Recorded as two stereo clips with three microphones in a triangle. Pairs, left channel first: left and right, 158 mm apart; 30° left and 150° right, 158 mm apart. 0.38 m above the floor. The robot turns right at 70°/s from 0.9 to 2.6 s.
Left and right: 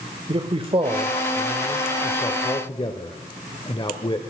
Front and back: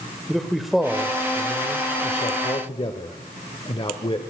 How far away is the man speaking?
About 1.0 m.